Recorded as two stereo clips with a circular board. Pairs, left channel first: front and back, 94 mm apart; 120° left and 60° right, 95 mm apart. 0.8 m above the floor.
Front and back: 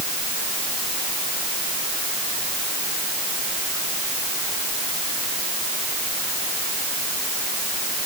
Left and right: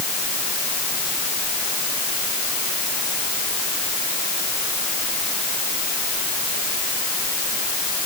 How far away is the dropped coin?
No dropped coin in this recording.